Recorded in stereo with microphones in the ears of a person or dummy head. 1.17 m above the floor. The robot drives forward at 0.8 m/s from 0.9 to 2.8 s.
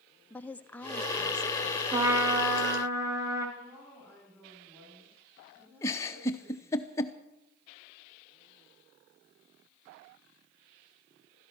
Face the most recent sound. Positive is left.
turn(degrees=15)  # may be behind; listen again after turning